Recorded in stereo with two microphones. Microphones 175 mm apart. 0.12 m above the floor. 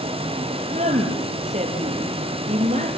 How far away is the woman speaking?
About 3.5 m.